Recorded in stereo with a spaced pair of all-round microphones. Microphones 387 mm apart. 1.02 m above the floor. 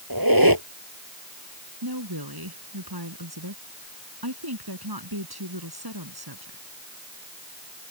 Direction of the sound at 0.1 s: 60° right (ahead or behind).